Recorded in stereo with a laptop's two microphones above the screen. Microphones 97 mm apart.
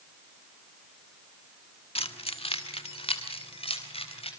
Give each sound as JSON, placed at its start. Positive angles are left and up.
{"t": 1.9, "sound": "keys jangling", "side_deg": 75, "distance_m": 1.3}